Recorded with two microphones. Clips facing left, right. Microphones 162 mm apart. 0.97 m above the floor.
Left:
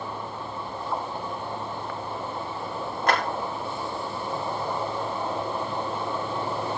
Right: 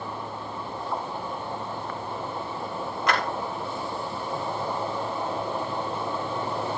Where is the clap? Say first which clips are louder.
Left 2 dB; 50° left (ahead or behind), 4.5 m.